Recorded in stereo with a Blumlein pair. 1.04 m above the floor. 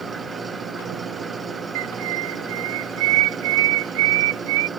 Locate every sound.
0.0 s an engine running: 15° right
1.8 s a bird: 50° right